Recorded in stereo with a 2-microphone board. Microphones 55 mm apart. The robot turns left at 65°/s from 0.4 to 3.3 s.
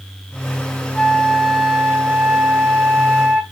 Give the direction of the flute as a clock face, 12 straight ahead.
11 o'clock.